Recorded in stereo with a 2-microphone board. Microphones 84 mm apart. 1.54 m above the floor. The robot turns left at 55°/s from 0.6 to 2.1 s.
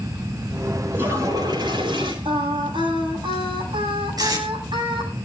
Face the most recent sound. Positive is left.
turn(degrees=-50)  # may be behind; listen again after turning